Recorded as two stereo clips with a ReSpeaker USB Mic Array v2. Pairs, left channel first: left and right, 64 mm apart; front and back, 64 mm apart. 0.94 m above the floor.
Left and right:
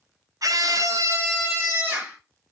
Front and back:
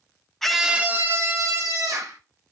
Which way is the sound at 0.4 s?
85° right.